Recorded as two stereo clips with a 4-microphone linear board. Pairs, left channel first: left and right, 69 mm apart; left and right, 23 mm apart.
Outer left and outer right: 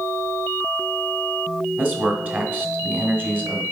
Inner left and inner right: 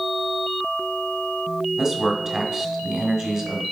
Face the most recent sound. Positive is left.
turn(degrees=-30)  # may be behind; listen again after turning